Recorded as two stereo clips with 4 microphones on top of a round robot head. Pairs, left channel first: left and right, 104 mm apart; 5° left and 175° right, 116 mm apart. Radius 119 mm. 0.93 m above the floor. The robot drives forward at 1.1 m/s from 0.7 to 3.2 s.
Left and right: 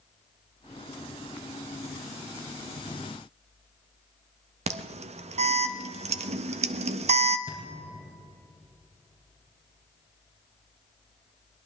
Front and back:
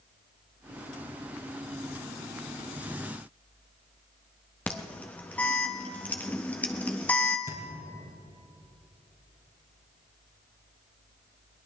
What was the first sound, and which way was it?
An alarm, 75° right.